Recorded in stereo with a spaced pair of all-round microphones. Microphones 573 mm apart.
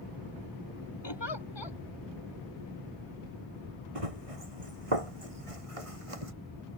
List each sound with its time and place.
1.0 s a giggle: 50° left (ahead or behind)
4.0 s running footsteps: 70° right (ahead or behind); by 6.3 s 65° right (ahead or behind)